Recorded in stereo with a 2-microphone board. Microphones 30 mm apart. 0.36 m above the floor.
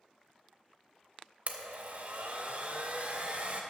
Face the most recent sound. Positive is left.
turn(degrees=-45)  # may be behind; listen again after turning